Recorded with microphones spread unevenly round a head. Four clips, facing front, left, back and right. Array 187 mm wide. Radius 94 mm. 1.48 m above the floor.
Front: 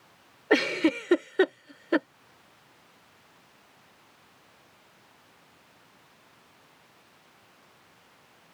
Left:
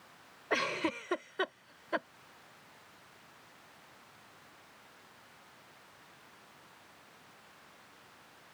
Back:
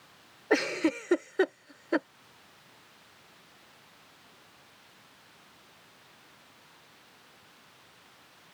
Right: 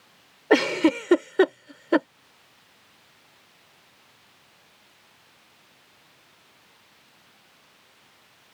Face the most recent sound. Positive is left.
turn(degrees=-70)